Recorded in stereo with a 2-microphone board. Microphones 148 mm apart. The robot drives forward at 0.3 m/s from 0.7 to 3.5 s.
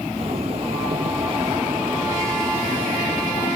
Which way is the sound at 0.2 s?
40° right (ahead or behind).